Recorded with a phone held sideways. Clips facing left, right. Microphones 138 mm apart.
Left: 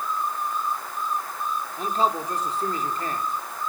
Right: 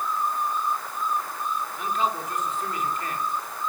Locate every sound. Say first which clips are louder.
1.8 s a man speaking: left 4 dB; 35° left (ahead or behind), 3.5 m